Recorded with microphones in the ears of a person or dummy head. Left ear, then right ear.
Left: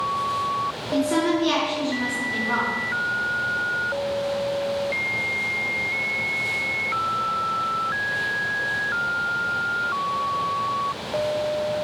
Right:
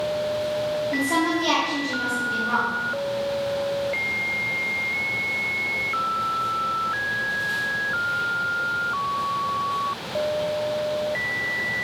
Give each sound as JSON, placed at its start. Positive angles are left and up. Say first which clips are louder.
{"t": 0.9, "sound": "a woman speaking", "louder": "left 3 dB", "side_deg": -60, "distance_m": 3.0}